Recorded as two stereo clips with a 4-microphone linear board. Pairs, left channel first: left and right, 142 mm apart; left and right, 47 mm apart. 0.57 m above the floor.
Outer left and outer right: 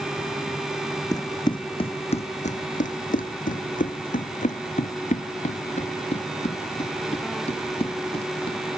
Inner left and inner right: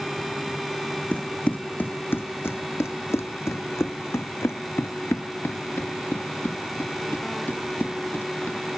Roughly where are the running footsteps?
Left.